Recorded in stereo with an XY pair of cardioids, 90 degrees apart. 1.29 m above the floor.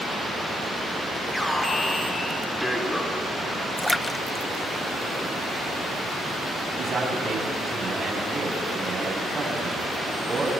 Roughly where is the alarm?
Ahead.